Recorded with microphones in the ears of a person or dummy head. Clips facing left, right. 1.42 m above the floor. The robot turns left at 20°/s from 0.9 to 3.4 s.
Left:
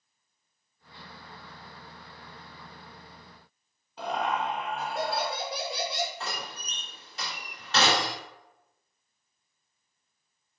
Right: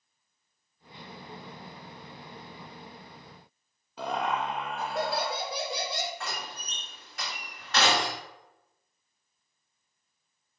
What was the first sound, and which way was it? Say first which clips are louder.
Laughter: even; 70° right (ahead or behind).